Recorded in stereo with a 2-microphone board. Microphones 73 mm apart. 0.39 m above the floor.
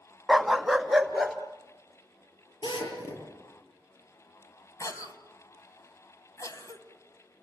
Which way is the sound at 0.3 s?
Centre (ahead or behind).